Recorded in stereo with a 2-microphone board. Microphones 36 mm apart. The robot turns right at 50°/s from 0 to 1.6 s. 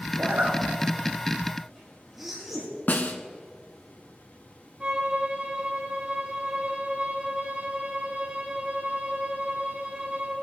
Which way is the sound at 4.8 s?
30° right (ahead or behind).